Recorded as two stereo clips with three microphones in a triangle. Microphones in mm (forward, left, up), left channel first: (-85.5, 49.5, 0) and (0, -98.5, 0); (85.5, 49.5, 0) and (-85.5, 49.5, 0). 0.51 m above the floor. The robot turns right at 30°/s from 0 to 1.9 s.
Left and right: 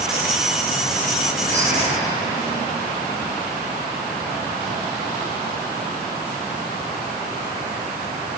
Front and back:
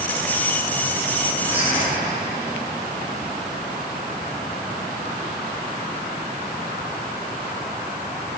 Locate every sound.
1.4 s whispering: 110° right, 2.5 m; by 1.9 s 95° right, 2.5 m